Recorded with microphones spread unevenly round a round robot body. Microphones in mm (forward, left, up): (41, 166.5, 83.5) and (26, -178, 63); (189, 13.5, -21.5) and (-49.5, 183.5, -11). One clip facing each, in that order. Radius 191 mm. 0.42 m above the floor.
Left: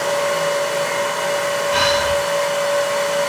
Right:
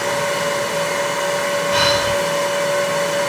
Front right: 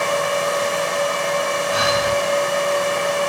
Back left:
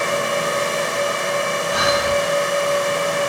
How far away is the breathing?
About 2 m.